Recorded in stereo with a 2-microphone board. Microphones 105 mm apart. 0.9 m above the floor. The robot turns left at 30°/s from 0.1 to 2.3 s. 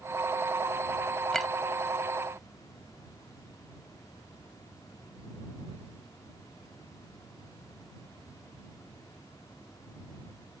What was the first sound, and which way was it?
A clink, 5° left (ahead or behind).